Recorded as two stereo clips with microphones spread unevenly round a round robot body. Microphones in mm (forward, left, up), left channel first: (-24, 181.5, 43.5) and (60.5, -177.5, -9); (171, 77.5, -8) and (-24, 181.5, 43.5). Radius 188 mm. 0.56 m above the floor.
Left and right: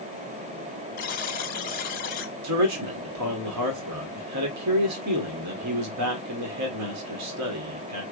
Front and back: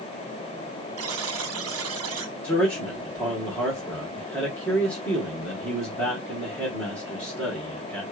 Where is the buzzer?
170° left, 1.0 m.